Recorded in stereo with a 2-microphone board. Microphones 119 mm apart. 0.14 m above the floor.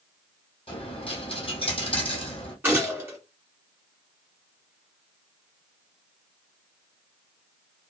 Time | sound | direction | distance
0.7 | a dropped coin | 50° left (ahead or behind) | 1.4 m
2.6 | a gunshot | 15° right (ahead or behind) | 1.9 m